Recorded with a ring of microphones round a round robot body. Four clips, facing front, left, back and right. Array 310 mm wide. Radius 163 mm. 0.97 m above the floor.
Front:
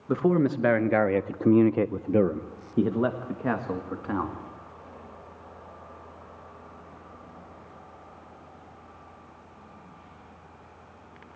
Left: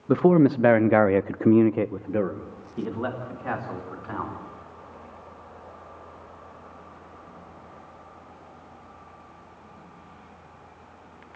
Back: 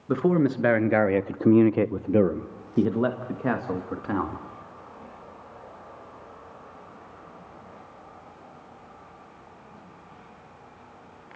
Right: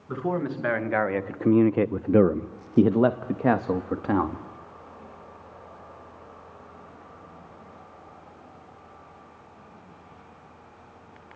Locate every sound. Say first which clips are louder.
0.1 s a man speaking: left 10 dB, back 1 dB; 95° left, 1.5 m; by 4.4 s 90° right, 2.5 m